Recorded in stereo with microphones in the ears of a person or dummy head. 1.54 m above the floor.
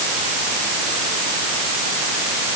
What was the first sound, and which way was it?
Only background noise.